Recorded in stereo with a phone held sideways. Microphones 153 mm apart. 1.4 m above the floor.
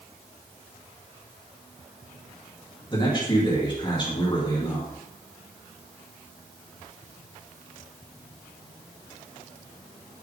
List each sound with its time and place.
2.9 s a man speaking: 30° left (ahead or behind), 3 m